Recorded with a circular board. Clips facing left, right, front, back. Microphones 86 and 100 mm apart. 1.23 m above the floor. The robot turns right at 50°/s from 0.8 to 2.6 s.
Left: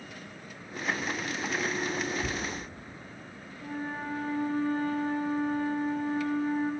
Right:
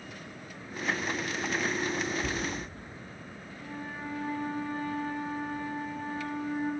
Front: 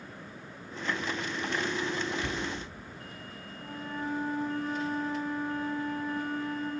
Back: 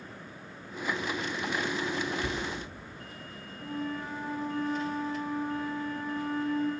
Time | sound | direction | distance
2.2 | a cupboard door | 80° left | 9 m
3.6 | a flute | 40° left | 7.5 m